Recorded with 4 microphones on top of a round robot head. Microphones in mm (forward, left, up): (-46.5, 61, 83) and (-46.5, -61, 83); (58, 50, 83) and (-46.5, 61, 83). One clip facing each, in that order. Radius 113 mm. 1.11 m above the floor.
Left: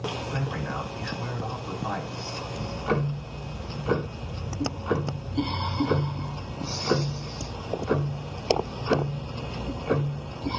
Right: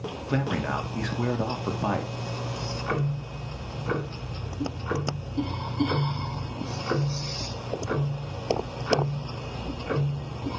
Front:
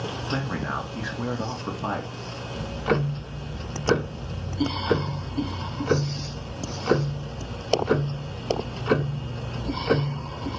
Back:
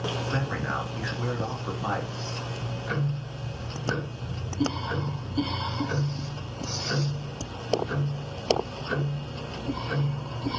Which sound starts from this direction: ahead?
Ticking, at 2.5 s.